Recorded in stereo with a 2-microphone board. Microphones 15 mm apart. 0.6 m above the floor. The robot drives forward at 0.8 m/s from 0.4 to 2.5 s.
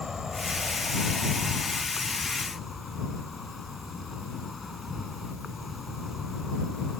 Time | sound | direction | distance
0.0 | an insect | 30° right (ahead or behind) | ?